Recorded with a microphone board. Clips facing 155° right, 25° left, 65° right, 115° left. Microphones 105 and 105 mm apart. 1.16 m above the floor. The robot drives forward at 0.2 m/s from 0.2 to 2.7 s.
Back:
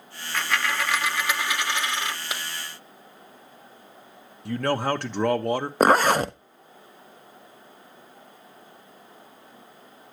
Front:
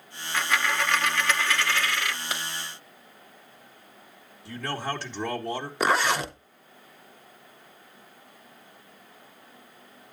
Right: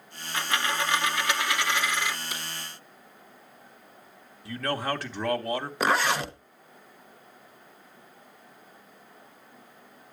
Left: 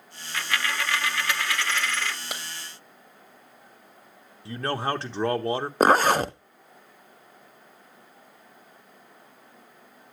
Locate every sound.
0.3 s a dropped coin: 55° right, 0.7 m; by 2.2 s 135° right, 0.7 m
2.3 s a clap: 130° left, 1.7 m; by 2.4 s 135° left, 1.8 m
4.5 s a man speaking: 175° left, 1.2 m
5.8 s a zipper: 160° left, 0.5 m